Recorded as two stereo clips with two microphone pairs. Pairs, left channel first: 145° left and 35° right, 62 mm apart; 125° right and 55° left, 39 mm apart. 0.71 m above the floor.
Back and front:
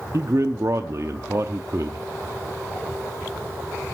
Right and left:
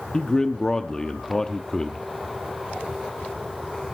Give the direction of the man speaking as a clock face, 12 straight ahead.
2 o'clock.